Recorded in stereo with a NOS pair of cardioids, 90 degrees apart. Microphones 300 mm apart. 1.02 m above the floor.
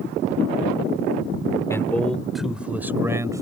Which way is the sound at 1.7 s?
10° left.